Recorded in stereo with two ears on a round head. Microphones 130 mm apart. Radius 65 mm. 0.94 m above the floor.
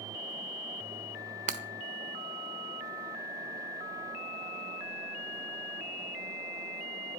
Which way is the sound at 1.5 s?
50° right (ahead or behind).